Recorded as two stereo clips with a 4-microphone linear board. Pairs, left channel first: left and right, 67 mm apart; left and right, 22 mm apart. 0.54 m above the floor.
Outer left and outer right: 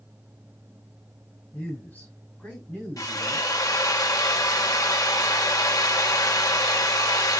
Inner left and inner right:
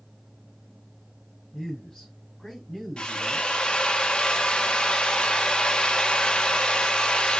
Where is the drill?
60° left (ahead or behind), 1.4 m.